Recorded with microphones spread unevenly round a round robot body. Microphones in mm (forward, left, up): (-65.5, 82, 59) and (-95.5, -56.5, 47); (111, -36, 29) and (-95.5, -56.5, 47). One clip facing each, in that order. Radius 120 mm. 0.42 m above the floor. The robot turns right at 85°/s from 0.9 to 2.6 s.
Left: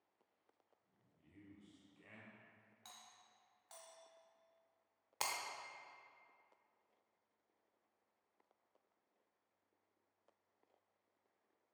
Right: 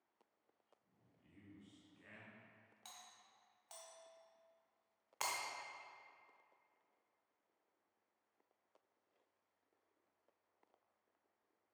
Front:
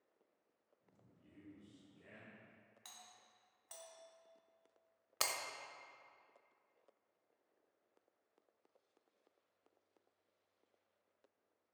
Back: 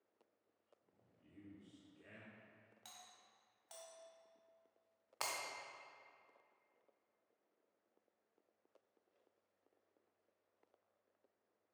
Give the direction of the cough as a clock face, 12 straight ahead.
I don't hear a cough.